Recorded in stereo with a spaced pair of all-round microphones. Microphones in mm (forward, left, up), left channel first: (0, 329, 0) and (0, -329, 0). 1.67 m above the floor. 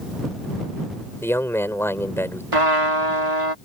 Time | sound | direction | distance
1.2 | a man speaking | 5° left (ahead or behind) | ?
2.5 | a trumpet | 50° right (ahead or behind) | ?